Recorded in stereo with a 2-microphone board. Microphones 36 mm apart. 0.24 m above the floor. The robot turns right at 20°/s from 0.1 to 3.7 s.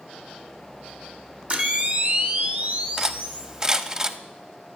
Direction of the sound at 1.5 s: 135° right.